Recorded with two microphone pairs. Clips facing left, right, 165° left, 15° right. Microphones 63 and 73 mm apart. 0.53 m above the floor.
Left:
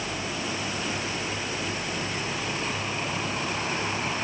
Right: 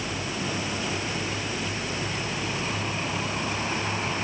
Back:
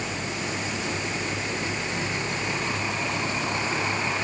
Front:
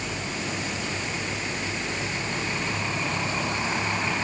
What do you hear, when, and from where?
Only background noise.